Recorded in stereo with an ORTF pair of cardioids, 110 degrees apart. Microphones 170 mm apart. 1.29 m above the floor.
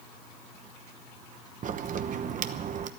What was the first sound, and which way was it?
A crack, 50° right.